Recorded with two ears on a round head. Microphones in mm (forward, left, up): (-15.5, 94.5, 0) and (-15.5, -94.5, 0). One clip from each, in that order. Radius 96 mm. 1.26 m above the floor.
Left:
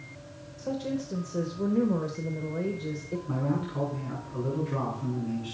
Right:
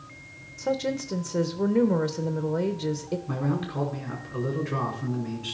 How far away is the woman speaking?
About 0.7 m.